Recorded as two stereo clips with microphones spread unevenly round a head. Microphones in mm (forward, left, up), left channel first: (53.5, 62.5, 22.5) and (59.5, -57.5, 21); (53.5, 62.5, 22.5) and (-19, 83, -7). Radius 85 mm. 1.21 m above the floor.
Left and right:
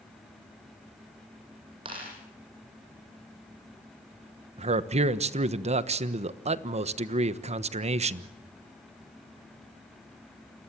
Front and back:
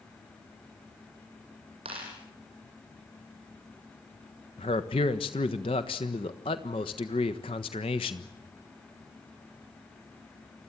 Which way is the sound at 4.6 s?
65° right.